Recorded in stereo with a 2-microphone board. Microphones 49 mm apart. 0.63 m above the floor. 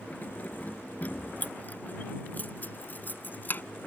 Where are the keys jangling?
35° left (ahead or behind); by 3.6 s 40° left (ahead or behind).